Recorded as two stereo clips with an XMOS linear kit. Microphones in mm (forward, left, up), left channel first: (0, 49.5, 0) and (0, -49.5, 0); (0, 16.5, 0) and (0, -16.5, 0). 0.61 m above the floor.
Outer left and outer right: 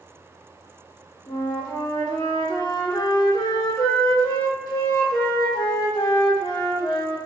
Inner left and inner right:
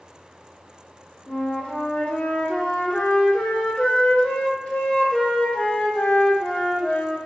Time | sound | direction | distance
1.3 | a flute | 40° left (ahead or behind) | 0.8 m